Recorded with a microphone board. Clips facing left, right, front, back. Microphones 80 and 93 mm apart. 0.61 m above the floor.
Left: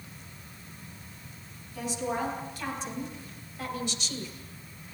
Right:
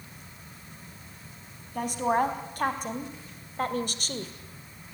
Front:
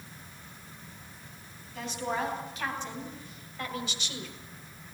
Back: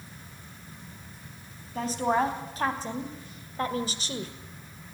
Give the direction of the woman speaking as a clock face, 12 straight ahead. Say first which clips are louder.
Right 6 dB, back 7 dB; 4 o'clock.